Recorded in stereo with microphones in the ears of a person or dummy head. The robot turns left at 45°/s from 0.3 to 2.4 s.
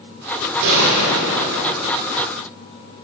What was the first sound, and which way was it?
A gunshot, 70° right.